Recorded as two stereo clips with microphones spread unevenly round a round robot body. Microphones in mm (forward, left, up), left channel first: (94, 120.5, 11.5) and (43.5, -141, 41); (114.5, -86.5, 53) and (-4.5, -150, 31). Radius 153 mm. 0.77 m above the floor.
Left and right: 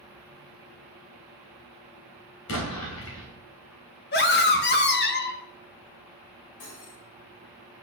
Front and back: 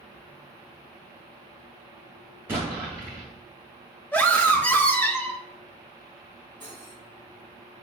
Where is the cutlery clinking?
105° left, 3.5 m.